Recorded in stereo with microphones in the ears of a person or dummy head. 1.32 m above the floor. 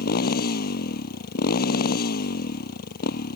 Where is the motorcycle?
45° left (ahead or behind).